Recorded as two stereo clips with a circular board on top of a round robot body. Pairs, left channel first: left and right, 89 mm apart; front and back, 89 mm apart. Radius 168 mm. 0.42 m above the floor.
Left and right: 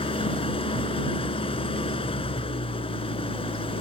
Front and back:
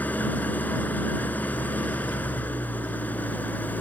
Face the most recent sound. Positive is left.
turn(degrees=75)